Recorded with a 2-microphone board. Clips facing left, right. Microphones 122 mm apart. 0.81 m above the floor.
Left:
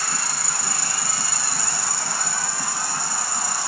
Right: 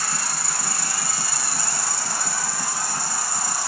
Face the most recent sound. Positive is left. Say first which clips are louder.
# even
turn(degrees=60)  # may be behind; listen again after turning